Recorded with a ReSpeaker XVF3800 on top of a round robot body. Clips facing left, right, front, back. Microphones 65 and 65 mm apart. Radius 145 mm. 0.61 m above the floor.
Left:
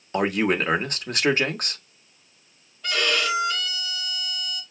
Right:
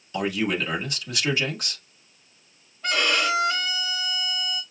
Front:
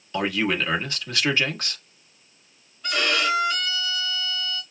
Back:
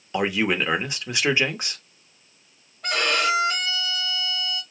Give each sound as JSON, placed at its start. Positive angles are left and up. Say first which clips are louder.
{"t": 0.1, "sound": "a man speaking", "louder": "left 3 dB, back 1 dB", "azimuth_deg": 110, "distance_m": 1.2}
{"t": 2.8, "sound": "a violin", "louder": "right 1 dB, back 1 dB", "azimuth_deg": -145, "distance_m": 2.0}